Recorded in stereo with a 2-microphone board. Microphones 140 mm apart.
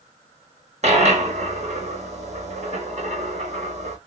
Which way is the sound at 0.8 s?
55° right (ahead or behind).